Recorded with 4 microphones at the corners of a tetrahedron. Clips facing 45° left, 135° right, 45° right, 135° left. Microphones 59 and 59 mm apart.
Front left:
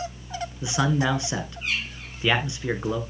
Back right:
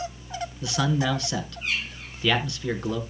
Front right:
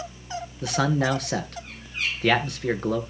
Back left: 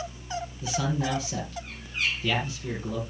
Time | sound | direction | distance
0.6 | a man speaking | 25° right | 3 m